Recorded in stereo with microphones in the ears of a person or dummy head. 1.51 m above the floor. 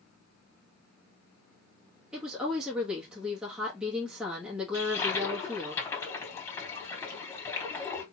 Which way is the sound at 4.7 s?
25° left (ahead or behind).